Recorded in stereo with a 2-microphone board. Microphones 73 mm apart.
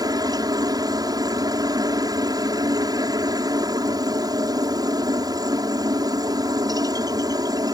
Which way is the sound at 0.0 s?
60° right (ahead or behind).